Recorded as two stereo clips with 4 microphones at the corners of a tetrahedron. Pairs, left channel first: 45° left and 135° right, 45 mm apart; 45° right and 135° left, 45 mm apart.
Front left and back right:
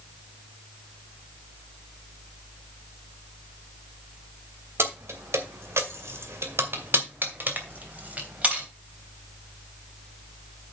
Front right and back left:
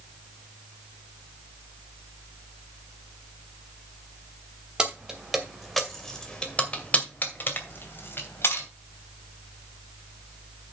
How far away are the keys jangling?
About 2.5 m.